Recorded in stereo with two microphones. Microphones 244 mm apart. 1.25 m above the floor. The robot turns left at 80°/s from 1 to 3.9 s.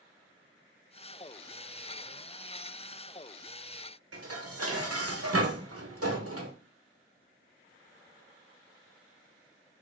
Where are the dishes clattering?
75° right (ahead or behind), 0.8 m.